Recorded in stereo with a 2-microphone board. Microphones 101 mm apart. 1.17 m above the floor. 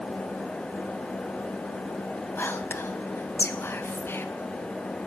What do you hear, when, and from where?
2.4 s whispering: 20° left (ahead or behind), 0.9 m